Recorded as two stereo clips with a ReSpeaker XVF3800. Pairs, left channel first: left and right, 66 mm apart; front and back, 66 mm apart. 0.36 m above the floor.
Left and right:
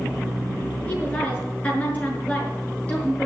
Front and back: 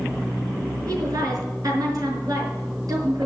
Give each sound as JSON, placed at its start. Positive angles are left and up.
{"t": 0.9, "sound": "a woman speaking", "azimuth_deg": 160, "distance_m": 5.0}